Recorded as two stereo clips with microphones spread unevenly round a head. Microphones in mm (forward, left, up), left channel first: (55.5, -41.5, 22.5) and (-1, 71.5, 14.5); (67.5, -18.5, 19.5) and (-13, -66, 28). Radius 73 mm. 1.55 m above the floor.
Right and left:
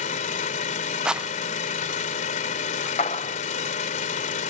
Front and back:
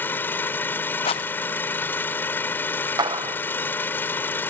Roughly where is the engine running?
Ahead right.